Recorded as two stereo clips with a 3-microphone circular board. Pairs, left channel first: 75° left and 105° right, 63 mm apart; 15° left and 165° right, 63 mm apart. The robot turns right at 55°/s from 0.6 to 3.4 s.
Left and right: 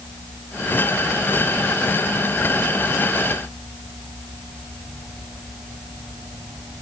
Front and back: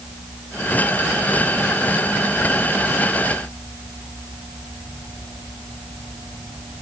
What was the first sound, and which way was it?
Only background noise.